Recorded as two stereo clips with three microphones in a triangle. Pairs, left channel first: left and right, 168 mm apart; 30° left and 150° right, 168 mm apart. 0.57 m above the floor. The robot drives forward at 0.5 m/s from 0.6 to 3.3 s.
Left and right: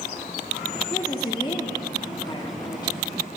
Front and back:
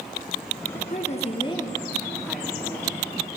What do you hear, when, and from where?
0.9 s a woman speaking: 35° left, 0.8 m; by 3.2 s 150° left, 0.9 m